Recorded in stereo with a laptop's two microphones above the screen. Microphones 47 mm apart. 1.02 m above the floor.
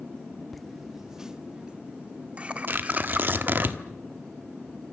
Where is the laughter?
Centre (ahead or behind), 1.6 m; by 3.7 s 35° right (ahead or behind), 3.5 m.